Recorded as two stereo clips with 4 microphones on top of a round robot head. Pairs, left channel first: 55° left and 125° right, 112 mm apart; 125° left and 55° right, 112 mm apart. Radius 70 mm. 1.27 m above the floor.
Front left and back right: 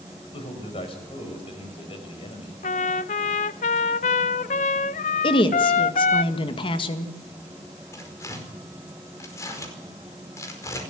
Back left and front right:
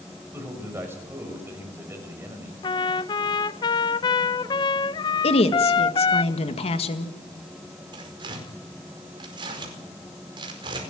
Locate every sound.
0.3 s a man speaking: 15° left, 5.5 m
2.6 s a trumpet: 75° left, 0.7 m
5.2 s a woman speaking: 95° left, 2.0 m
7.9 s tearing paper: 5° right, 5 m